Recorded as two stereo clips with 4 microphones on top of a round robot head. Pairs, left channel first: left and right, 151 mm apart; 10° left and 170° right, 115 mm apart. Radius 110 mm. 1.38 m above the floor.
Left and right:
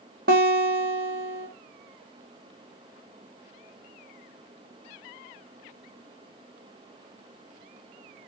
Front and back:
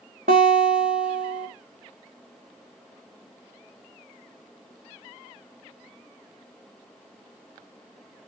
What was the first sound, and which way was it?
A guitar, 130° right.